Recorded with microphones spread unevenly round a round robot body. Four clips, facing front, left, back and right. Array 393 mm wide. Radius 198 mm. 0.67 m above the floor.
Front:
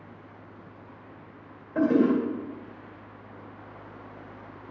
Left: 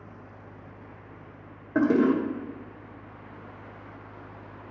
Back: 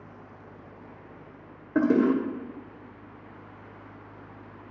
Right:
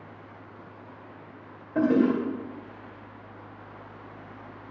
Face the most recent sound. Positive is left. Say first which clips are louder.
# even, even
turn(degrees=150)